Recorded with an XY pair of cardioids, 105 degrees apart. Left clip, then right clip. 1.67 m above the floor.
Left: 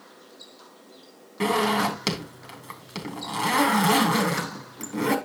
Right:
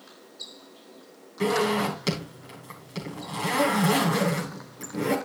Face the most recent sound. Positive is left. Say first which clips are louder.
# left 2 dB
turn(degrees=40)